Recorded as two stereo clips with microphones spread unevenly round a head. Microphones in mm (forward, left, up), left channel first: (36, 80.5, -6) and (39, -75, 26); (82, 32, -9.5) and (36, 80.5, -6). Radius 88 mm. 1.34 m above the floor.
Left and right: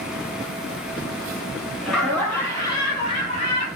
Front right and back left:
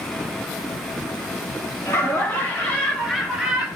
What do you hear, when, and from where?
1.9 s laughter: 5° left, 2 m; by 3.7 s 50° left, 1.9 m